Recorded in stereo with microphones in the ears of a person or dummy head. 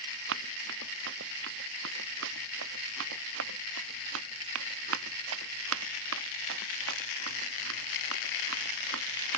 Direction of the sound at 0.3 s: 65° right (ahead or behind).